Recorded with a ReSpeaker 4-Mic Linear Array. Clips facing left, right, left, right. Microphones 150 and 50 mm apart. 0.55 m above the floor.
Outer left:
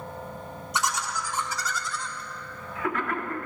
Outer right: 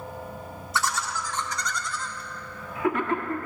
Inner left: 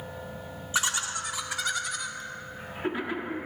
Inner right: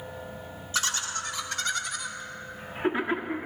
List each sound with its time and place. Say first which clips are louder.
0.7 s laughter: outer right 1 dB, inner left 1 dB; 20° left (ahead or behind), 1.6 m; by 3.5 s 30° right (ahead or behind), 1.4 m